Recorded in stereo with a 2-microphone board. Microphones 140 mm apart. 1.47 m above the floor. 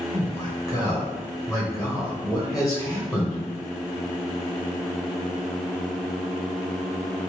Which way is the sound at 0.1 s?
5° left (ahead or behind).